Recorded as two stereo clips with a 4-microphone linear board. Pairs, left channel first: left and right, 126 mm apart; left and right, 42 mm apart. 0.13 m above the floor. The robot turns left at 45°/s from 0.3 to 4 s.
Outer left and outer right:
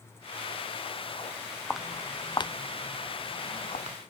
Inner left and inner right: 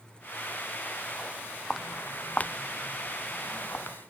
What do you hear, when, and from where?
1.7 s footsteps: 5° right (ahead or behind); by 4.0 s 55° left (ahead or behind)